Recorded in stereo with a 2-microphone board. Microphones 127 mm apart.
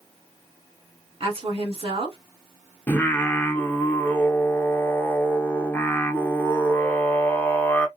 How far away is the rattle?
I don't hear a rattle.